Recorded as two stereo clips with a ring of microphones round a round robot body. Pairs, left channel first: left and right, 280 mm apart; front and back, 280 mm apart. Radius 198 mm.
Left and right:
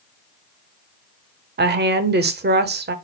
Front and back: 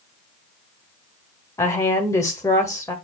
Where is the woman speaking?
75° right, 1.1 m.